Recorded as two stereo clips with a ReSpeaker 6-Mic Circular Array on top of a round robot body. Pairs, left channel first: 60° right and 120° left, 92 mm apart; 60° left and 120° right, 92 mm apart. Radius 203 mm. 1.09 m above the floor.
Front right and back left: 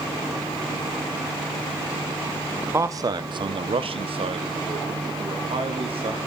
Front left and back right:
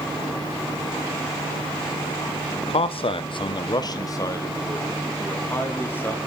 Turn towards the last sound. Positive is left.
turn(degrees=130)